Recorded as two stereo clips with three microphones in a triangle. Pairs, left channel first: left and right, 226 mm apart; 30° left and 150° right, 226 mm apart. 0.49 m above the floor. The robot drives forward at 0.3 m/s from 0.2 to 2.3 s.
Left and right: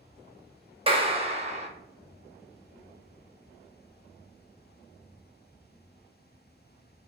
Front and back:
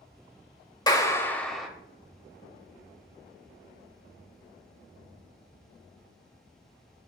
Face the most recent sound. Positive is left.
turn(degrees=-95)